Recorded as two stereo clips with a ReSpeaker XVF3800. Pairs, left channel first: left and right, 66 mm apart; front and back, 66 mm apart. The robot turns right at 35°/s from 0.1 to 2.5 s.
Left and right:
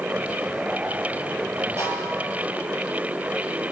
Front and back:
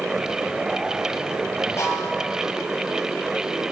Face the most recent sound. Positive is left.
turn(degrees=-20)